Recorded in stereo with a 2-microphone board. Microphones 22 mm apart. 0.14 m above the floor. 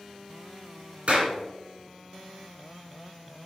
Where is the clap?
50° right (ahead or behind), 2 m.